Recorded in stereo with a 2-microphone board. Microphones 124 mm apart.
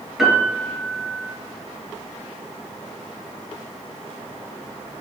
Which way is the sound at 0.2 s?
5° right (ahead or behind).